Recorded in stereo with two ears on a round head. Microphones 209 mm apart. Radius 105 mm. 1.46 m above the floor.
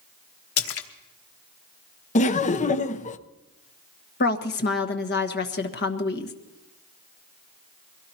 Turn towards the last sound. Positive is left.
turn(degrees=45)  # may be behind; listen again after turning